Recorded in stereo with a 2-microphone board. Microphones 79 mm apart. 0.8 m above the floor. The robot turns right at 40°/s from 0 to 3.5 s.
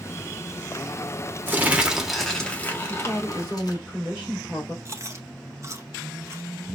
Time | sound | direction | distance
1.5 | crumpling | 25° right | 1.2 m
2.9 | a woman speaking | 5° right (ahead or behind) | 3 m
4.8 | chewing | 35° right (ahead or behind) | 0.8 m